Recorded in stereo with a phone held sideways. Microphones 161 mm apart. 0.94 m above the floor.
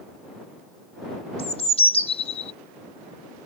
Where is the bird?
40° left (ahead or behind).